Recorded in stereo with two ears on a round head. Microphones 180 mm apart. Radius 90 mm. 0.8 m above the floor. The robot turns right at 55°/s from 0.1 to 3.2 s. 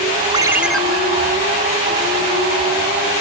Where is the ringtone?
20° right (ahead or behind); by 0.8 s 5° left (ahead or behind).